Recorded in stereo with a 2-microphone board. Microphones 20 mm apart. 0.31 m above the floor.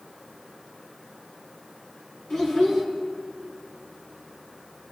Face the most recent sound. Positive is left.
turn(degrees=40)  # may be behind; listen again after turning